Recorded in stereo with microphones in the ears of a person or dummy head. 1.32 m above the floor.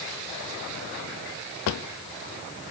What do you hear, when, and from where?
1.7 s a drawer: 75° left (ahead or behind), 1.2 m